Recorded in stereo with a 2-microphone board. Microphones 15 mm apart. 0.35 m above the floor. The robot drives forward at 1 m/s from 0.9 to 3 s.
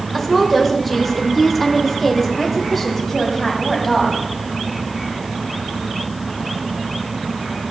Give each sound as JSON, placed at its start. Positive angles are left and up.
{"t": 0.1, "sound": "a woman speaking", "side_deg": 5, "distance_m": 1.0}